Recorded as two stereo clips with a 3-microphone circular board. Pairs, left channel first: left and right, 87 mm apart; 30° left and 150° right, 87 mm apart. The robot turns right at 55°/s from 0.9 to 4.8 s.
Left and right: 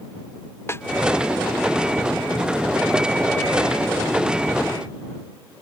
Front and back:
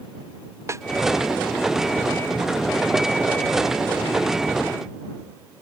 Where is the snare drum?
150° left.